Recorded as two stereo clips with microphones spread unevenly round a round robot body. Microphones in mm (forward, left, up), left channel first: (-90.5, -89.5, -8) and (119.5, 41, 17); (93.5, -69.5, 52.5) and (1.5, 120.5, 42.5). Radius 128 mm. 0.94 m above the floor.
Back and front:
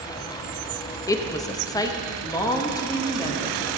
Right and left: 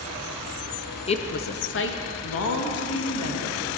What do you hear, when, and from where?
1.1 s a woman speaking: 100° right, 0.5 m; by 3.8 s 70° right, 2 m